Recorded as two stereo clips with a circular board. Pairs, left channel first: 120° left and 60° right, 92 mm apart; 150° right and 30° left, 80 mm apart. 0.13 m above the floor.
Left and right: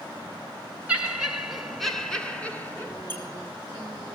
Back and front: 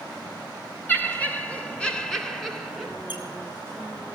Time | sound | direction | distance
0.9 | laughter | 115° right | 1.5 m
3.1 | a squeak | 175° right | 3.5 m